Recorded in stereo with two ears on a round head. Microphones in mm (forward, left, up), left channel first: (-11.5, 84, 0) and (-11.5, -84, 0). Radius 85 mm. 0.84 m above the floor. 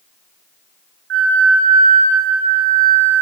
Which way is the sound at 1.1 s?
75° right (ahead or behind).